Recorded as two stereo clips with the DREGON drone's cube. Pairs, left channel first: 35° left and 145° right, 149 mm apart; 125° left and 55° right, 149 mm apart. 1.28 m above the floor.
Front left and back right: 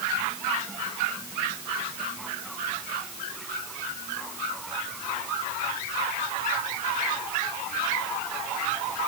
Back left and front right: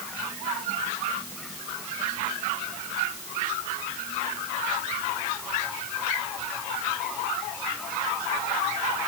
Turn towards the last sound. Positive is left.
No sound to turn to.